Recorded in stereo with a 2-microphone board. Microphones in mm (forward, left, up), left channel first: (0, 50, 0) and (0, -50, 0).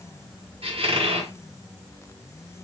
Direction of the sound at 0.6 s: 70° right (ahead or behind).